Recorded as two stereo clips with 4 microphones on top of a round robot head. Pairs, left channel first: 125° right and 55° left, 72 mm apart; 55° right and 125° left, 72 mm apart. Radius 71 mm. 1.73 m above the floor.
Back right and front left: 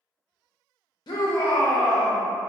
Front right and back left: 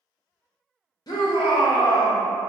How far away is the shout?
About 0.6 m.